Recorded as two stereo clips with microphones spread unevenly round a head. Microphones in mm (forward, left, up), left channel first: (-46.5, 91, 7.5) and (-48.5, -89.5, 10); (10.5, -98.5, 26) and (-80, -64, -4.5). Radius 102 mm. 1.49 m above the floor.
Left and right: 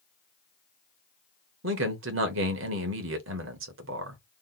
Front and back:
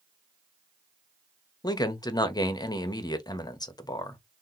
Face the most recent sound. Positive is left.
turn(degrees=-70)